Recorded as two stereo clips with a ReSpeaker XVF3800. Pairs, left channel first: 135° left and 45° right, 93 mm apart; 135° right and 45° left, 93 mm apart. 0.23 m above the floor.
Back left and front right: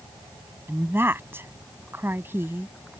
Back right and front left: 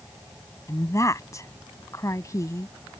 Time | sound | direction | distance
0.7 | a woman speaking | 100° right | ?